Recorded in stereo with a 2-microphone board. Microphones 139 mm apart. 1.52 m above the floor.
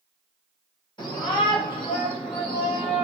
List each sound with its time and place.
1.0 s a shout: 30° left (ahead or behind), 3.5 m; by 3.0 s 45° left (ahead or behind), 2.5 m